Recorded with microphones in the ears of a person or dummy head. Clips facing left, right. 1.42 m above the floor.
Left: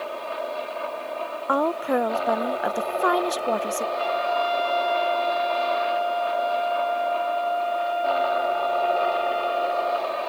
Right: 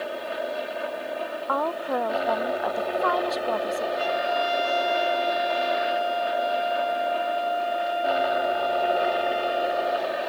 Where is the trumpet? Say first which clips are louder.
Left 2 dB; 25° right (ahead or behind).